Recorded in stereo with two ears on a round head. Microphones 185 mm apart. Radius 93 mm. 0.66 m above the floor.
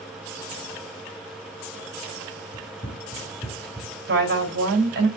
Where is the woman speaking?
55° right (ahead or behind), 3.5 m.